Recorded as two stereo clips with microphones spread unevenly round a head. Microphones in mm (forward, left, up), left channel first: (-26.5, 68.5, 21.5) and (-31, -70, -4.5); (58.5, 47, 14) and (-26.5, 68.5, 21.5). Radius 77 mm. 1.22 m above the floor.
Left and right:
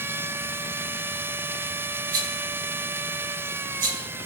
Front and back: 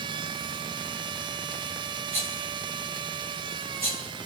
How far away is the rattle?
About 9 m.